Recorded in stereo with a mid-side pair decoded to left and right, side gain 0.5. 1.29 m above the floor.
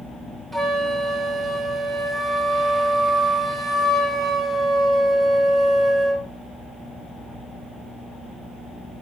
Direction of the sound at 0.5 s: Straight ahead.